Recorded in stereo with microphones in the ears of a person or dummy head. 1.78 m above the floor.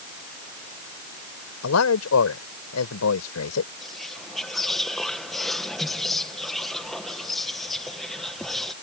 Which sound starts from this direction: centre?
Whispering, at 3.8 s.